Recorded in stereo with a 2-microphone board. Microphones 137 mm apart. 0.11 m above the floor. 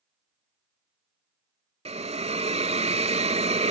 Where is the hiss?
50° right (ahead or behind), 0.5 m.